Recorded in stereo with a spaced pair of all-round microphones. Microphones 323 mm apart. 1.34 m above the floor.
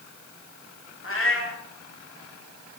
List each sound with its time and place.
1.0 s a cat meowing: 40° left (ahead or behind), 0.9 m